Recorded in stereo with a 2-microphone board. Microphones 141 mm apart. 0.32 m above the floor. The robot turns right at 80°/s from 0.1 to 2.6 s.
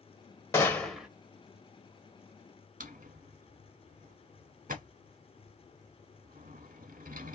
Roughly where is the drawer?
Right.